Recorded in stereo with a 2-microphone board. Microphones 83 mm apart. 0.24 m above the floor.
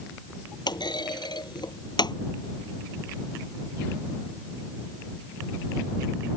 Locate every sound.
0.7 s a clunk: 70° left (ahead or behind)